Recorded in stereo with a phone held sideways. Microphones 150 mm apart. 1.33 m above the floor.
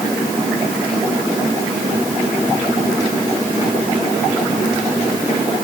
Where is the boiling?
I don't hear boiling.